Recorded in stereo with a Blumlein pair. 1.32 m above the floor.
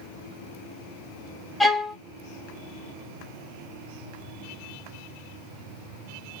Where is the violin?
5° left, 0.6 m.